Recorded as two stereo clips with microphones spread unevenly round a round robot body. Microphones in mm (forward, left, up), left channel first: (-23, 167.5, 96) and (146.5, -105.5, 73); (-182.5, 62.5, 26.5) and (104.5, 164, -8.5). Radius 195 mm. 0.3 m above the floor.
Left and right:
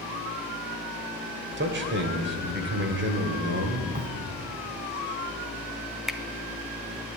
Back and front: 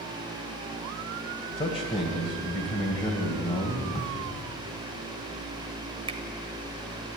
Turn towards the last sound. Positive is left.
turn(degrees=20)